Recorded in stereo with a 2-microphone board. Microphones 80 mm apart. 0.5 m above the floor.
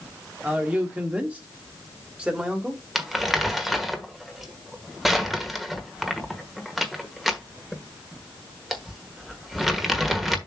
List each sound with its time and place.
0.4 s a man speaking: 15° right (ahead or behind), 1.4 m
3.0 s crumpling: centre (ahead or behind), 1.2 m